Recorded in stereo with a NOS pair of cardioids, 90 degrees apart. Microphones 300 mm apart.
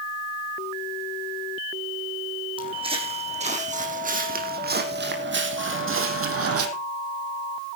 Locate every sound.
2.6 s footsteps: 15° right, 4 m; by 6.7 s 55° right, 3 m